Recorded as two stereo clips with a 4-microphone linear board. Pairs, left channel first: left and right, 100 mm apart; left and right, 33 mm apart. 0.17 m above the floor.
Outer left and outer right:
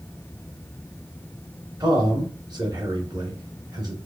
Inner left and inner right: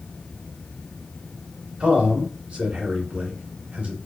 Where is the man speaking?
45° right (ahead or behind), 2.5 m.